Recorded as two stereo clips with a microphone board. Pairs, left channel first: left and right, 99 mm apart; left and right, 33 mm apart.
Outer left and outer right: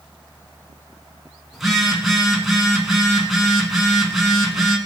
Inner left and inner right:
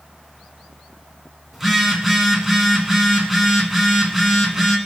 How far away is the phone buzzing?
About 1.4 m.